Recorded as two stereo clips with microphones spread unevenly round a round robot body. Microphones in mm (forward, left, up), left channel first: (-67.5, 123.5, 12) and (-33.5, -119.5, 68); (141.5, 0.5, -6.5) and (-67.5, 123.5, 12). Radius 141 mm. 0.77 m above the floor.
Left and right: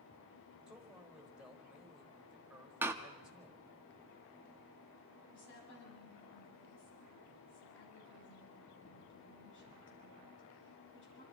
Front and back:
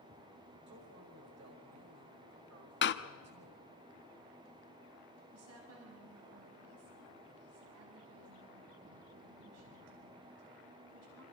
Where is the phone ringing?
No phone ringing in this recording.